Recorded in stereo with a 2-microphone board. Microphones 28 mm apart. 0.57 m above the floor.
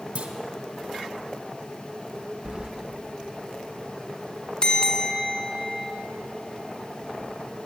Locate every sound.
0.1 s a clunk: 60° right (ahead or behind), 1.6 m
2.5 s keys jangling: 40° right (ahead or behind), 0.8 m
4.6 s a bell: 35° left (ahead or behind), 1.2 m